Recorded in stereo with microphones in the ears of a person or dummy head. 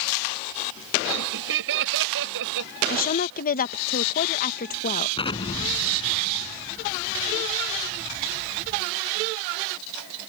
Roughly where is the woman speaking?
Left.